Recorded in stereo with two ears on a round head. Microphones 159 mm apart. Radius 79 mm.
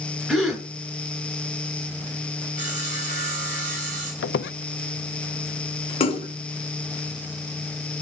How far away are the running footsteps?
No running footsteps in this recording.